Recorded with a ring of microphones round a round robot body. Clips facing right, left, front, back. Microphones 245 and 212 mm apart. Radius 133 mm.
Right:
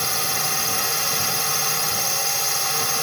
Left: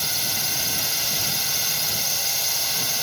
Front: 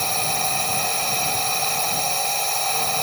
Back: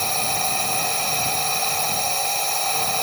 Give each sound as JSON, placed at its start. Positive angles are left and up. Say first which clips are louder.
{"t": 0.0, "sound": "a drone", "louder": "right 5 dB, even", "azimuth_deg": -90}